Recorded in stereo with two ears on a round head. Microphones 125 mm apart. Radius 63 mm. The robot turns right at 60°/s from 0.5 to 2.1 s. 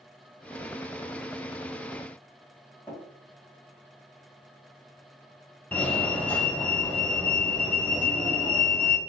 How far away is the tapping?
About 2 m.